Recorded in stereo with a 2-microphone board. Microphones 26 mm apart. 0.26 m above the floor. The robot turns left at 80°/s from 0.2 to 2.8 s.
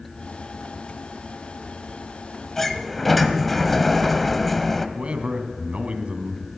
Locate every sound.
2.6 s a sliding door: 20° left (ahead or behind), 0.9 m; by 4.9 s 10° left (ahead or behind), 0.9 m
5.0 s a man speaking: 50° right (ahead or behind), 1.8 m